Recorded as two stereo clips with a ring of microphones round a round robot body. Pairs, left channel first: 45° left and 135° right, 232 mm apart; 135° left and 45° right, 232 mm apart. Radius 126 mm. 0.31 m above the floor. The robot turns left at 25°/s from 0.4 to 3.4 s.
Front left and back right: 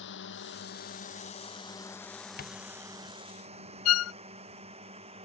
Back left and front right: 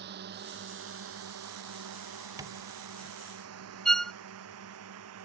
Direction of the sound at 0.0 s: Straight ahead.